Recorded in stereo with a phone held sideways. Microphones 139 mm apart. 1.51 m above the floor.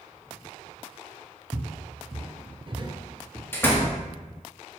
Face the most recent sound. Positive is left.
turn(degrees=15)  # may be behind; listen again after turning